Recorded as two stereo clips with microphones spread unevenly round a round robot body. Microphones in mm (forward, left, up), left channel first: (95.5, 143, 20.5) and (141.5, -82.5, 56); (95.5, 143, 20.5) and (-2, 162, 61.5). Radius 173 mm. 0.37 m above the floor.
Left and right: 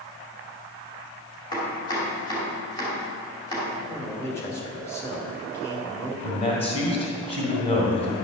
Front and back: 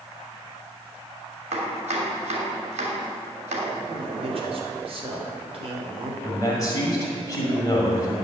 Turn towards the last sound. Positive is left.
turn(degrees=40)